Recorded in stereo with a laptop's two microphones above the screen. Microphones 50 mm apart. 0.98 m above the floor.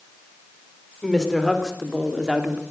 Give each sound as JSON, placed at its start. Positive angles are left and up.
{"t": 1.0, "sound": "a woman speaking", "side_deg": 5, "distance_m": 3.0}